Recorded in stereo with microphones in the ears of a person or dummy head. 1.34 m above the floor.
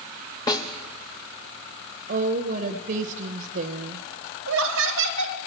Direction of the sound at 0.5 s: 20° left (ahead or behind).